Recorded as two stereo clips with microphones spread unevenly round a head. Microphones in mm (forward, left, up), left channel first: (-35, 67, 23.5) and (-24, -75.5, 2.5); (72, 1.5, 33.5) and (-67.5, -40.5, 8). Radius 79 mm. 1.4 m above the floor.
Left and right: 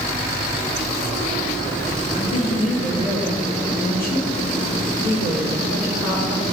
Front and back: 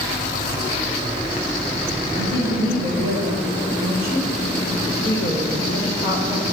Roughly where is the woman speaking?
Behind left.